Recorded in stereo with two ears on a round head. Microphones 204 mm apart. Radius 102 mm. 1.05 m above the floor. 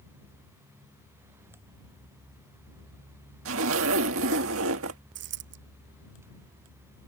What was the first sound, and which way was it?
A zipper, 65° right (ahead or behind).